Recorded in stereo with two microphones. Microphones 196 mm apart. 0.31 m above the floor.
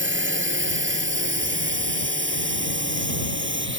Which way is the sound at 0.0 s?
80° right.